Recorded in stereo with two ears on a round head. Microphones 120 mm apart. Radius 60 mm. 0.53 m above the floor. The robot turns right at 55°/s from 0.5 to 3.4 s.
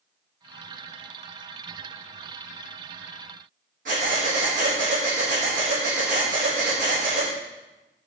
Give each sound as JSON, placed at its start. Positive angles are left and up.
{"t": 3.9, "sound": "breathing", "side_deg": -65, "distance_m": 7.5}